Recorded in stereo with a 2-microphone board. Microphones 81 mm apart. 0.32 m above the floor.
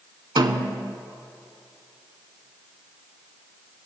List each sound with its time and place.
0.4 s a snare drum: 60° right (ahead or behind), 0.5 m